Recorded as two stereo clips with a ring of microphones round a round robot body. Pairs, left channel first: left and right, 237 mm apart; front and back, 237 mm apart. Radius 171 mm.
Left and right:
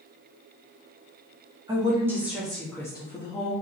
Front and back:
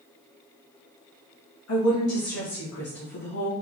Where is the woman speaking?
20° right, 1.6 m; by 3.5 s 30° left, 1.3 m.